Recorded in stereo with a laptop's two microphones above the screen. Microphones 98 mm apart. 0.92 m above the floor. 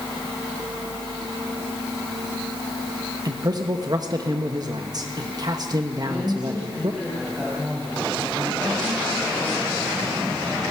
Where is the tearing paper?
No tearing paper in this recording.